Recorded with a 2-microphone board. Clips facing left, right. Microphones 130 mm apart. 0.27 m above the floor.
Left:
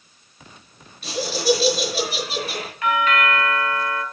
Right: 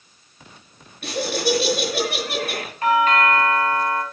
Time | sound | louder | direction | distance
1.0 | laughter | left 1 dB | 60° right (ahead or behind) | 5 m
2.8 | a doorbell | right 3 dB | 40° right (ahead or behind) | 2 m